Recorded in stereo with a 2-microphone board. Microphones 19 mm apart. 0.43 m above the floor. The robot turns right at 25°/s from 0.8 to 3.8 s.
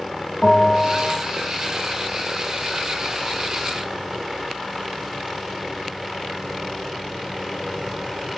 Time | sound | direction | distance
0.4 | a bell | 5° left (ahead or behind) | 2 m